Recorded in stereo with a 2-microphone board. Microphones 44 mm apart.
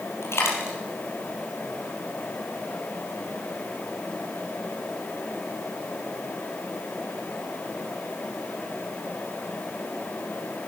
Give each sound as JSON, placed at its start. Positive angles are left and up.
{"t": 0.2, "sound": "a dropped coin", "side_deg": 70, "distance_m": 4.0}